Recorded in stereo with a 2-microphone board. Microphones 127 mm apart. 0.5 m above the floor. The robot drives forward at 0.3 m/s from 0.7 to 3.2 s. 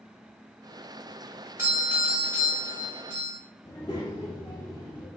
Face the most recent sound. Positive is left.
turn(degrees=35)  # may be behind; listen again after turning